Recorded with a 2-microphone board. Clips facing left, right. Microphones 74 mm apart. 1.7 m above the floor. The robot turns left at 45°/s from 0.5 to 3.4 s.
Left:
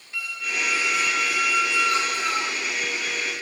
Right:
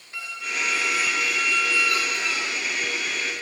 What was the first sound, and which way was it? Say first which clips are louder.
A squeak: left 1 dB; 150° right.